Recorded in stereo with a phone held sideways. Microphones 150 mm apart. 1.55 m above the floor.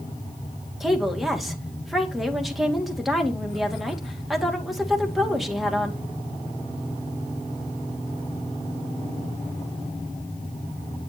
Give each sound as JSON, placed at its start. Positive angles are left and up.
{"t": 0.8, "sound": "a woman speaking", "side_deg": 0, "distance_m": 2.0}